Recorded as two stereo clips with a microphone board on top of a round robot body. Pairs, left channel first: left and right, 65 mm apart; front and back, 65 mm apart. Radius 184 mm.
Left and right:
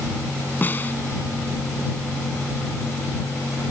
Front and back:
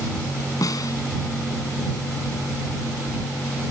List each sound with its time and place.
0.6 s a snare drum: 30° left